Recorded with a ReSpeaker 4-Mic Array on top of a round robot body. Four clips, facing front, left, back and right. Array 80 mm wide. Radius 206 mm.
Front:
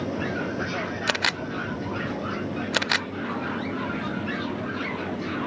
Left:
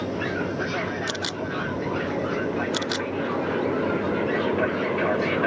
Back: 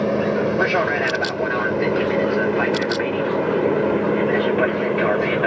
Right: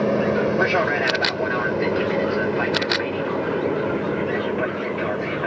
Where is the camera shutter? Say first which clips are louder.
Right 7 dB, back 7 dB; 25° right.